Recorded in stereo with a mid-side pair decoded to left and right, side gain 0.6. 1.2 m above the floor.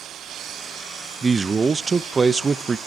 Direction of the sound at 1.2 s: 25° right.